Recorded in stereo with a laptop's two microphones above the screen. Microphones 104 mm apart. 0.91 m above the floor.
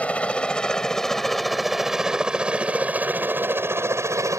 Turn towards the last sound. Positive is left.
turn(degrees=-30)  # may be behind; listen again after turning